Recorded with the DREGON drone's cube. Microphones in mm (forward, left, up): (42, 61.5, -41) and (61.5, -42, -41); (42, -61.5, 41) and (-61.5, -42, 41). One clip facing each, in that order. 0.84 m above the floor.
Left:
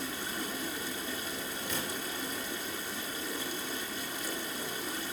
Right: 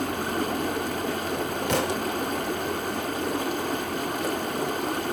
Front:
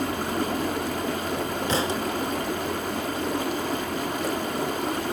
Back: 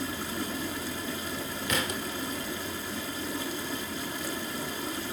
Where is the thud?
70° right, 0.8 m.